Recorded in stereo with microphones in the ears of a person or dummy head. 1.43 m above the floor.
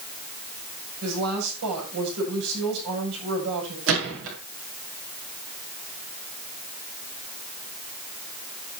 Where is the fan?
I don't hear a fan.